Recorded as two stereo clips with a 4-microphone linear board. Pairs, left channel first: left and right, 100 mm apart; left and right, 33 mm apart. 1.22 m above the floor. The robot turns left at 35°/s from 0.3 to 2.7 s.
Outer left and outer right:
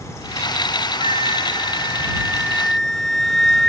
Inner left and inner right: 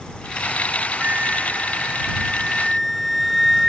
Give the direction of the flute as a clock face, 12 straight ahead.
4 o'clock.